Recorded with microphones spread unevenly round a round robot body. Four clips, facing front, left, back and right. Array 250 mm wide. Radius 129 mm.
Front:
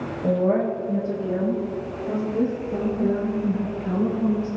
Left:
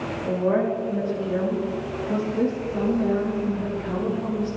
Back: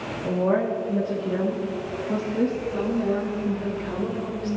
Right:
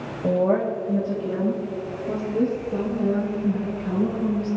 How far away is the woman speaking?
About 4 m.